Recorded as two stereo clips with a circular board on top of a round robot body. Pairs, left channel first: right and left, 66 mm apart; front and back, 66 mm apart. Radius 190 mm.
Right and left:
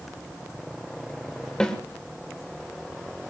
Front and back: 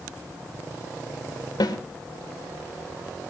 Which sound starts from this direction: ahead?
A snare drum, at 1.6 s.